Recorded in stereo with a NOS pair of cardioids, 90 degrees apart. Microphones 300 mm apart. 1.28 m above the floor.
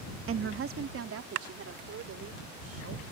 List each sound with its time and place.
0.3 s a woman speaking: 45° right; by 3.0 s 55° right